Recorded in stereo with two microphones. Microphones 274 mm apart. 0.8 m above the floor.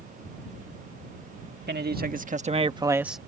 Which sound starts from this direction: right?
A man speaking, at 1.7 s.